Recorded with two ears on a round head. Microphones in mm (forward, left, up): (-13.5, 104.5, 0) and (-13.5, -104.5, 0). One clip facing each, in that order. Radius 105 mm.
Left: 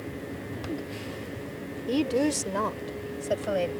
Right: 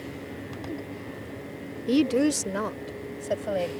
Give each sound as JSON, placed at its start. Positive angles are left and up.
{"t": 1.9, "sound": "a woman speaking", "side_deg": -30}